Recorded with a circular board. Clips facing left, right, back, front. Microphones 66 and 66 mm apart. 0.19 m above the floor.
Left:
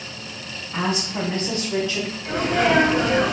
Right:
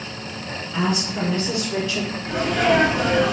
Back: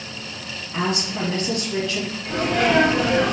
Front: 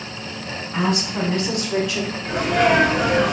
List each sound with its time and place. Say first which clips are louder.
0.7 s a woman speaking: right 1 dB, front 2 dB; 40° left, 1.4 m; by 2.1 s 85° left, 1.0 m
2.2 s a sneeze: even, front 2 dB; 65° left, 2 m